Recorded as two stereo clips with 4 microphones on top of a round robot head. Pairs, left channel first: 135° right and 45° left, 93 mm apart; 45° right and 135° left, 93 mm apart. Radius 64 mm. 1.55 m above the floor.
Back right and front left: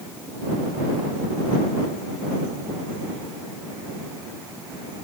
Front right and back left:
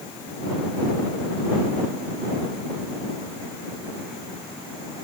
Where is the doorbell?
No doorbell in this recording.